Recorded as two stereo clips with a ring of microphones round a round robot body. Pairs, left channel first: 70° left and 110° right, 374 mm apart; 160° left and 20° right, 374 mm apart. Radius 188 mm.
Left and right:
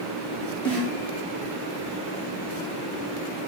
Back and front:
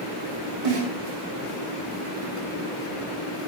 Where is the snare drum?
20° right, 4 m.